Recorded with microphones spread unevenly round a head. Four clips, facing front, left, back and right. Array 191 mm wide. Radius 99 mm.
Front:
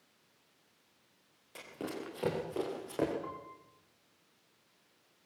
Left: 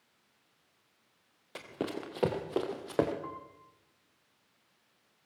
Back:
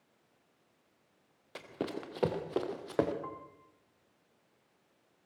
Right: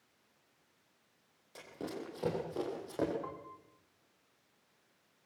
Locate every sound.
1.6 s running footsteps: 100° left, 3.5 m
3.2 s a piano: 140° right, 2.5 m